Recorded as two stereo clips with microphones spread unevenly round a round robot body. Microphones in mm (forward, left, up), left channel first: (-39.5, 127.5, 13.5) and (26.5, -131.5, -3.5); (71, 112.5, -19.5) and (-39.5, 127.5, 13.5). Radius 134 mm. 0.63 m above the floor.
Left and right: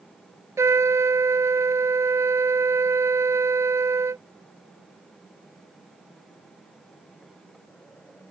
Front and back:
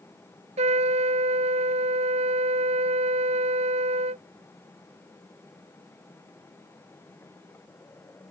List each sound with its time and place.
0.6 s a trumpet: 155° right